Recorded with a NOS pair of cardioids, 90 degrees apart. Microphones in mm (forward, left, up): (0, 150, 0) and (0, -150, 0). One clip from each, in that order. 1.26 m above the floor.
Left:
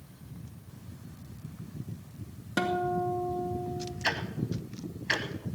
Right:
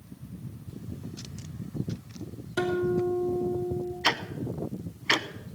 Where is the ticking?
25° right, 0.8 m.